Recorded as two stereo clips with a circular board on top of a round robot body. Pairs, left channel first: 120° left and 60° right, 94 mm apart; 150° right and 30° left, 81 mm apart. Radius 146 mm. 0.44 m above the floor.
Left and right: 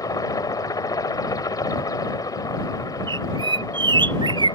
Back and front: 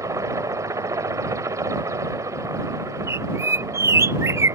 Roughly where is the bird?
Ahead right.